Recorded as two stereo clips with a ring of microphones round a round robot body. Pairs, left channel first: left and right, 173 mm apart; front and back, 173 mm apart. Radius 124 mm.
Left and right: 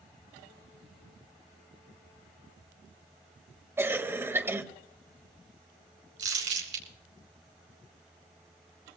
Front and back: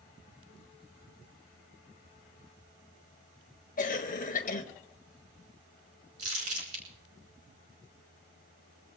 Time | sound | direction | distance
3.8 | a cough | 15° right | 1.5 m
6.2 | crumpling | 120° right | 3.5 m